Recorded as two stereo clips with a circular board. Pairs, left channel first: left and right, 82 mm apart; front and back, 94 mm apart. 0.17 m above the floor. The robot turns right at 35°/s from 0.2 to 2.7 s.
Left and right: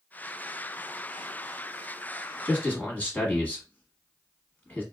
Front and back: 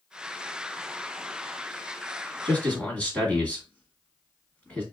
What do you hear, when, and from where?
2.5 s a man speaking: 50° left, 1.5 m; by 4.8 s 55° left, 1.5 m